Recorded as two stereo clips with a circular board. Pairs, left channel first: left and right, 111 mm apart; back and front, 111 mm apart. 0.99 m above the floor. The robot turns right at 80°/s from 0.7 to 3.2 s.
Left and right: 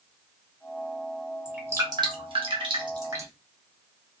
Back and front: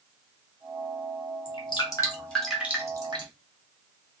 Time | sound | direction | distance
1.4 | dripping | 170° right | 1.1 m